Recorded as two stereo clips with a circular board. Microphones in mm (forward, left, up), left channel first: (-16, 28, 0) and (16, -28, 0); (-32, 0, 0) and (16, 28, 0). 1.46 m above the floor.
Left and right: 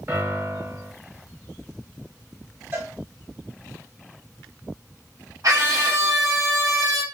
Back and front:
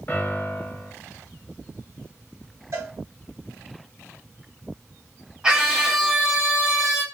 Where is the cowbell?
5° left, 1.5 m.